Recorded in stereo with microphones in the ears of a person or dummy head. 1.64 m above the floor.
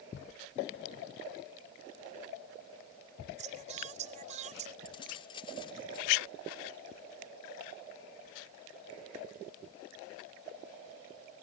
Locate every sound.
3.4 s singing: 40° right (ahead or behind)
4.8 s keys jangling: 30° left (ahead or behind)